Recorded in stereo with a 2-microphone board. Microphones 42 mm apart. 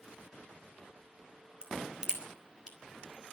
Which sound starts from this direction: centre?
A crack, at 1.6 s.